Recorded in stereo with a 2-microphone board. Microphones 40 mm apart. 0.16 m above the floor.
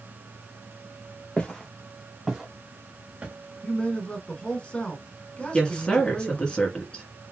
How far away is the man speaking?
About 1.2 m.